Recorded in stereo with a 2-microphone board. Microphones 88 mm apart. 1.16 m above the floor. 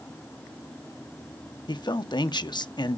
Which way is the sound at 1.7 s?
55° left (ahead or behind).